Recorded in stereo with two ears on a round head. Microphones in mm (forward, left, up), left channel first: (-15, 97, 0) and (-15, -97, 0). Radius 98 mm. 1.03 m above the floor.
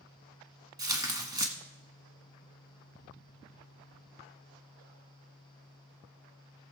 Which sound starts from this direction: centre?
Tearing paper, at 0.8 s.